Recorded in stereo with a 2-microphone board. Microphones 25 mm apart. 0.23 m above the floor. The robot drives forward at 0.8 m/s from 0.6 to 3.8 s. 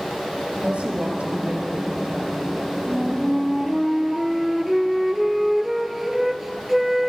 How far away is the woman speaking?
About 4 m.